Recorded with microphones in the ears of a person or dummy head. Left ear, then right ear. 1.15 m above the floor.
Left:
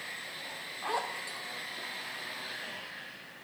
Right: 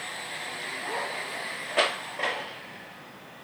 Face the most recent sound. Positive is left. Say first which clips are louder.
# even
turn(degrees=25)  # may be behind; listen again after turning